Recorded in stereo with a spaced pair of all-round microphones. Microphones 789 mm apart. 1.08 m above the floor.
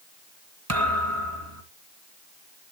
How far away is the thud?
About 2 m.